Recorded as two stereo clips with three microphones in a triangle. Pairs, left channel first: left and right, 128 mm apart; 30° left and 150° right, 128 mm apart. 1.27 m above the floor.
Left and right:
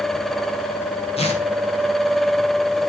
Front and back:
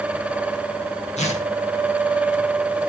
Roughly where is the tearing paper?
Ahead left.